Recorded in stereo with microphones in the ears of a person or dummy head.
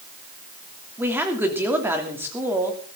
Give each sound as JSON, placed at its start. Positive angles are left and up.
{"t": 1.0, "sound": "a woman speaking", "side_deg": -10, "distance_m": 3.0}